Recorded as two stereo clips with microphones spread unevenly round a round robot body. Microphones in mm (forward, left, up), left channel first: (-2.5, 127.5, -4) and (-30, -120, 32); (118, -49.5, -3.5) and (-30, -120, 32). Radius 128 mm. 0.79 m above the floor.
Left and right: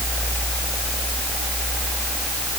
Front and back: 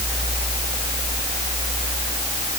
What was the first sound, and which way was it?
Only background noise.